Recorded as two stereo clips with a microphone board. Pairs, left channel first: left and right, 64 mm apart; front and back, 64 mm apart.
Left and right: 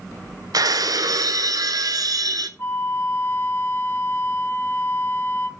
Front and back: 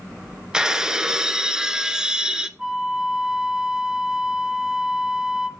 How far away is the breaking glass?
About 0.7 m.